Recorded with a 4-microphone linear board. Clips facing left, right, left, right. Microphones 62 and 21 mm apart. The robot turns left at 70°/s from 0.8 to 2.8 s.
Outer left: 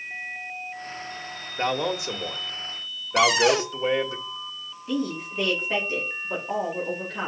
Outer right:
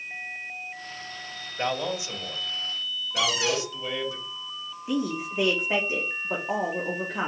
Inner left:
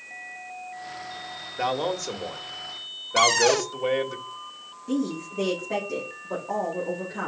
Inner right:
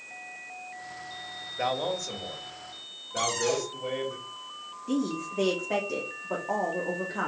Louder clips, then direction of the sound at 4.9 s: Even, inner left 2 dB; 20° right (ahead or behind).